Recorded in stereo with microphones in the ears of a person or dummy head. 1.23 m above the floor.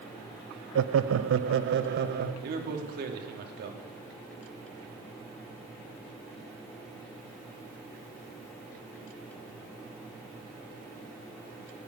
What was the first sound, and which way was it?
Laughter, 65° right (ahead or behind).